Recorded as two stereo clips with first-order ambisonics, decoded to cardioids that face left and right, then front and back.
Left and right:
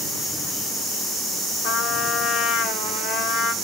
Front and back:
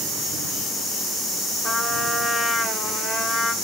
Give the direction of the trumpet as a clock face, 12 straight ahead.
10 o'clock.